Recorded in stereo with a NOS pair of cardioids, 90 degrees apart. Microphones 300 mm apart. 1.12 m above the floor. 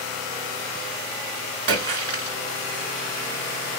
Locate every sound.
1.7 s a splash: 50° right, 1.2 m